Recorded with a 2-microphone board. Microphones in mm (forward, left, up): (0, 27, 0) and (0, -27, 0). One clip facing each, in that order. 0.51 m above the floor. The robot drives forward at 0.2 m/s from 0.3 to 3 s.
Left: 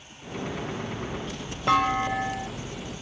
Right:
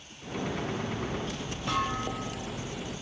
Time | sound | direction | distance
1.7 | a clunk | 80° left | 1.0 m